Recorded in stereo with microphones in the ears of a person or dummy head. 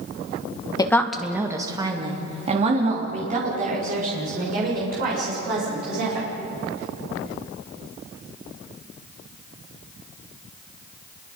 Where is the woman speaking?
25° left (ahead or behind), 1.5 m; by 6.3 s 50° right (ahead or behind), 8.5 m.